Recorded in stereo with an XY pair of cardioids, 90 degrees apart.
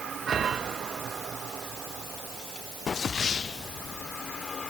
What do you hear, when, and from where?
Only background noise.